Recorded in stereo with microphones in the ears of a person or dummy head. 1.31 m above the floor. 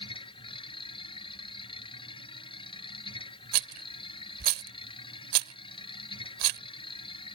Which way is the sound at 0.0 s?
30° left (ahead or behind).